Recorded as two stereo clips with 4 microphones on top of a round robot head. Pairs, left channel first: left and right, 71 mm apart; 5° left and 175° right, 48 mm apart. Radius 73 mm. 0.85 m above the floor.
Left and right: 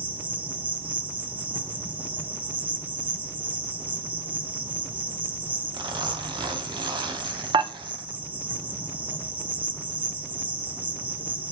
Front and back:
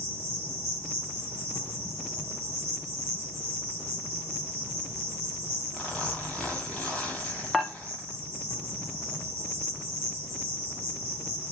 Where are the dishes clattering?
80° right, 1.0 m.